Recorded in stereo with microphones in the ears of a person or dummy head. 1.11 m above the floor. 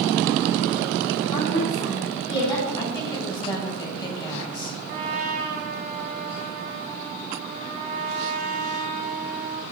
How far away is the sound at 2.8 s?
About 5.5 m.